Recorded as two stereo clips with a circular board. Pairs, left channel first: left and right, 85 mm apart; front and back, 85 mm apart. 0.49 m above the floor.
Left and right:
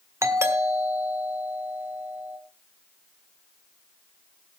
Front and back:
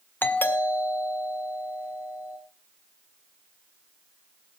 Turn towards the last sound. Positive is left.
turn(degrees=-55)